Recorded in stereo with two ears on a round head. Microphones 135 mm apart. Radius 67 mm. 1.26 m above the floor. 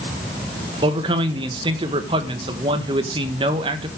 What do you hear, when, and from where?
0.8 s a man speaking: 30° right (ahead or behind), 1.6 m